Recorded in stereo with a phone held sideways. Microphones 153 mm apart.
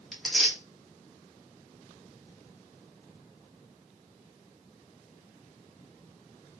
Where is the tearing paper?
Centre (ahead or behind), 1.4 m.